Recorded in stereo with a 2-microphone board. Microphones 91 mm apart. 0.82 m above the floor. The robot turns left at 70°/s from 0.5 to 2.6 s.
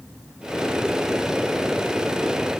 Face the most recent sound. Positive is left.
No sound to turn to.